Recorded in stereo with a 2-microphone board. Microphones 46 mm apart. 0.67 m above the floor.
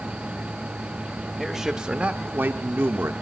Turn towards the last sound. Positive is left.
turn(degrees=-65)  # may be behind; listen again after turning